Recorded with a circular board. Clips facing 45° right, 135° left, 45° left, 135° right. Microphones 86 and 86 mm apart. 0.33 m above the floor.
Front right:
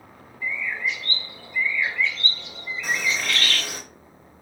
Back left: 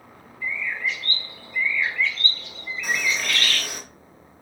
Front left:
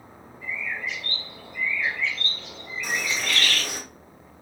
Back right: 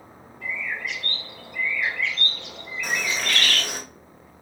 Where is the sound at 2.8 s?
100° right, 2.5 m.